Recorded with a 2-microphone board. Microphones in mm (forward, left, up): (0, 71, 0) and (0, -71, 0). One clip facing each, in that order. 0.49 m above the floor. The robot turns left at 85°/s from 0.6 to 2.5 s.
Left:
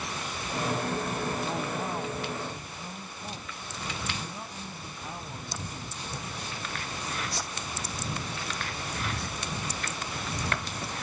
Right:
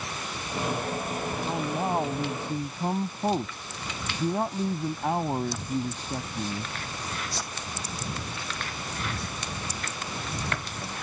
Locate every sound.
1.4 s a man speaking: 10° right; by 6.7 s 100° right